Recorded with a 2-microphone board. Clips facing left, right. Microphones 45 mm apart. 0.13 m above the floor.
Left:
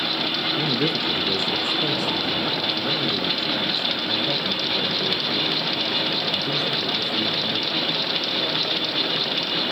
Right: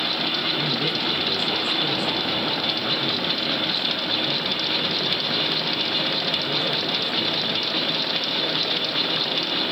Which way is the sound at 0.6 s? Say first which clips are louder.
Left 2 dB; 50° left (ahead or behind).